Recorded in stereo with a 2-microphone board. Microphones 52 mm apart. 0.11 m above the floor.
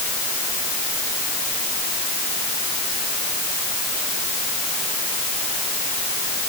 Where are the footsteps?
No footsteps in this recording.